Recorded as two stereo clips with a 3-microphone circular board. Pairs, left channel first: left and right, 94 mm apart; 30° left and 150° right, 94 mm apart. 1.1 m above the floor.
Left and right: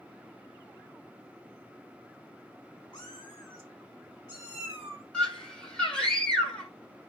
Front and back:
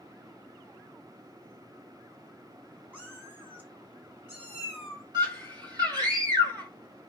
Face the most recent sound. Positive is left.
turn(degrees=170)